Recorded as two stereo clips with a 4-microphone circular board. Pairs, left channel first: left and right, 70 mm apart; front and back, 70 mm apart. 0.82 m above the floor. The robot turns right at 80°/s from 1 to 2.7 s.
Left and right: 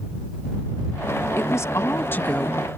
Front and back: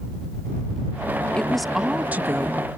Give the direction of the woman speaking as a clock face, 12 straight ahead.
10 o'clock.